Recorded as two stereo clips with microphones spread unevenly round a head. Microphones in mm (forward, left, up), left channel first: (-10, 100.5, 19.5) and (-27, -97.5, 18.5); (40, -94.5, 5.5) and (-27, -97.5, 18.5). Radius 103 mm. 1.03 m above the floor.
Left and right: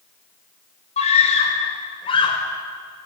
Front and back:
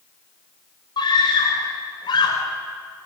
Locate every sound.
1.0 s a scream: 25° left, 6 m; by 2.4 s 15° left, 5.5 m